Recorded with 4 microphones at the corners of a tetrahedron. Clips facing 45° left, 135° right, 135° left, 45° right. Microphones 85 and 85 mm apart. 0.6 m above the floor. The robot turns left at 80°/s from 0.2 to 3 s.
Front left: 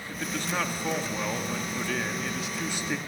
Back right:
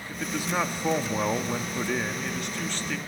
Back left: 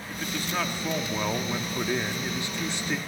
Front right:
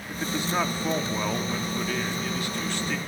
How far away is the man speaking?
About 1.2 m.